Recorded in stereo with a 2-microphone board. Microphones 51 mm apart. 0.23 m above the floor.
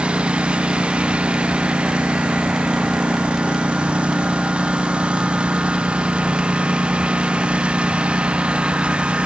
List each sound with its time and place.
0.0 s a lawn mower: 25° right (ahead or behind)